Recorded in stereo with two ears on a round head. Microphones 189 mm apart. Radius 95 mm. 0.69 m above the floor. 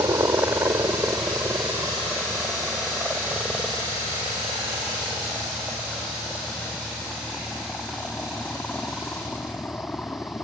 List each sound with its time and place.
0.0 s a helicopter: 10° right (ahead or behind); by 10.4 s 10° left (ahead or behind)